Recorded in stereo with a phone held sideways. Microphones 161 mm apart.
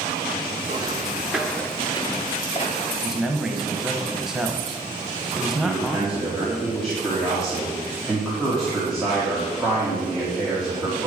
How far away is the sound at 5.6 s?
About 2 m.